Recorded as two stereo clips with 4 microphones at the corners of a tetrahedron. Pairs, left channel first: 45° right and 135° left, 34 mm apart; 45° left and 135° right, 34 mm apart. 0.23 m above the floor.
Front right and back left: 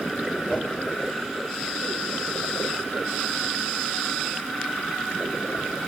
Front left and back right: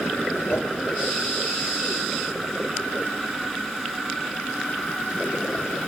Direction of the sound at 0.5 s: 35° left.